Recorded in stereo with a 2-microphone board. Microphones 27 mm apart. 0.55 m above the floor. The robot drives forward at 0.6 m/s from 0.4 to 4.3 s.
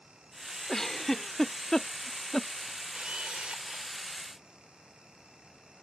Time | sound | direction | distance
0.7 | a giggle | 15° left (ahead or behind) | ?
2.9 | a camera shutter | 50° right (ahead or behind) | ?